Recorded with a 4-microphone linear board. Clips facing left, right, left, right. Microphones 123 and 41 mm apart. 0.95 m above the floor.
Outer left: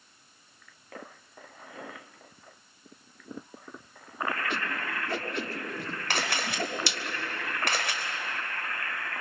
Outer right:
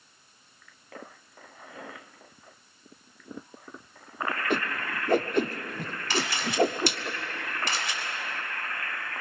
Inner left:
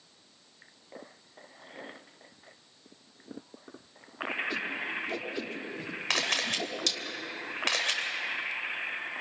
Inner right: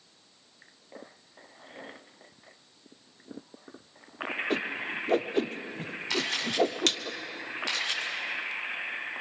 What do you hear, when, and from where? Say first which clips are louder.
4.5 s a whoosh: outer right 4 dB, inner right 2 dB; 50° right (ahead or behind), 0.9 m
6.1 s a camera shutter: outer right 3 dB, inner left 1 dB; 60° left (ahead or behind), 3.5 m